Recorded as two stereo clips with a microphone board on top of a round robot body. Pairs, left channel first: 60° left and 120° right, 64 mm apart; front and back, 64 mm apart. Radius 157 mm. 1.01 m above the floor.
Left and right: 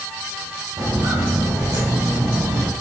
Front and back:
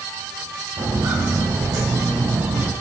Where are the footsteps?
160° right, 3 m; by 2.7 s 175° left, 1.8 m.